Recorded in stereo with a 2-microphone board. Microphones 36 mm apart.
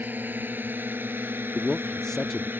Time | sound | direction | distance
0.0 | a drone | 60° right (ahead or behind) | ?
1.6 | a man speaking | 15° left (ahead or behind) | ?